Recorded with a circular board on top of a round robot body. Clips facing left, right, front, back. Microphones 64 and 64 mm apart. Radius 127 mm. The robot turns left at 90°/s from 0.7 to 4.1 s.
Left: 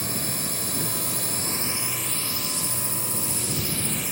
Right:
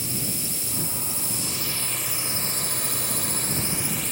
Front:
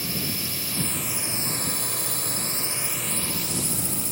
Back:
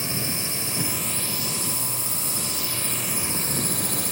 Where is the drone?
120° left; by 4.1 s 170° left.